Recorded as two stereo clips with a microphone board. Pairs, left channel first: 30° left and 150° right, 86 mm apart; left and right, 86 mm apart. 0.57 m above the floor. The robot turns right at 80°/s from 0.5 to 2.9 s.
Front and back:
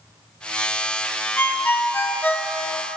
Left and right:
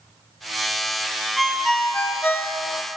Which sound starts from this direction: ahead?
A ringtone, at 1.4 s.